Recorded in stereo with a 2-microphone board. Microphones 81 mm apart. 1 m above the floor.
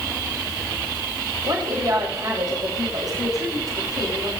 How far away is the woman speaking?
About 6 m.